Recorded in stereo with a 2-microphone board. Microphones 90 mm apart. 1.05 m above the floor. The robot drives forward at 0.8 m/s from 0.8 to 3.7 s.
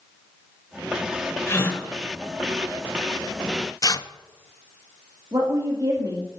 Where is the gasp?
30° left (ahead or behind), 2 m; by 1.8 s 25° left (ahead or behind), 2.5 m.